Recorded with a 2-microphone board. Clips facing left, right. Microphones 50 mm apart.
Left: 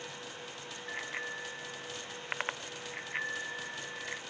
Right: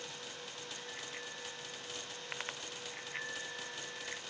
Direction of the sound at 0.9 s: 45° left (ahead or behind).